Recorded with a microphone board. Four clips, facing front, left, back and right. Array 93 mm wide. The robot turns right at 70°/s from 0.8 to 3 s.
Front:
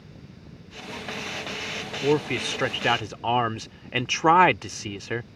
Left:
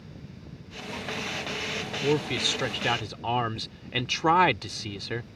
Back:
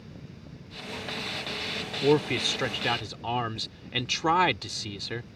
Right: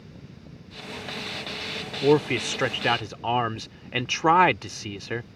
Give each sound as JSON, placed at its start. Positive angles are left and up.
{"t": 2.0, "sound": "a man speaking", "azimuth_deg": -95}